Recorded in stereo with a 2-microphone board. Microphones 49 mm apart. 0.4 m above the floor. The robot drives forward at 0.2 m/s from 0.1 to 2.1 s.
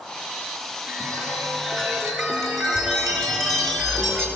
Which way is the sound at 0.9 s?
Centre (ahead or behind).